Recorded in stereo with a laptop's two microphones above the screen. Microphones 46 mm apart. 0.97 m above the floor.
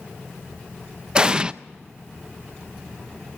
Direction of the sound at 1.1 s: 20° right (ahead or behind).